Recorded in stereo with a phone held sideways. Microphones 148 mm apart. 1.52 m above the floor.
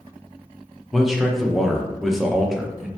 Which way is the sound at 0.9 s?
Centre (ahead or behind).